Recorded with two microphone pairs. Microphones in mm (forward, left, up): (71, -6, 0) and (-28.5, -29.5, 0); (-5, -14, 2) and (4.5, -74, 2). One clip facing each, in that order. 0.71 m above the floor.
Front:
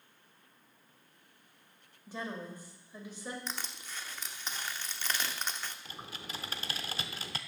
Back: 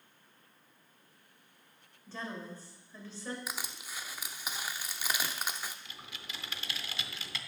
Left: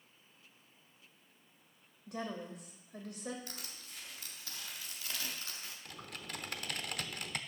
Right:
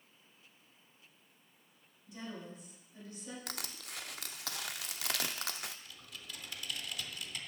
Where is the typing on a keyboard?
65° left, 0.6 m.